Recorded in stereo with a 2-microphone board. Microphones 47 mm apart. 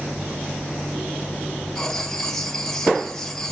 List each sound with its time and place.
1.8 s writing: 10° left (ahead or behind), 1.4 m